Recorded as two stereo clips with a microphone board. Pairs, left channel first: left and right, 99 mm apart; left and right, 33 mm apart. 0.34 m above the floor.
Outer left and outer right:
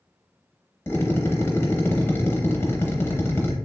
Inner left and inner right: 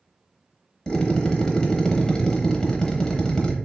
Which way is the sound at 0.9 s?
25° left (ahead or behind).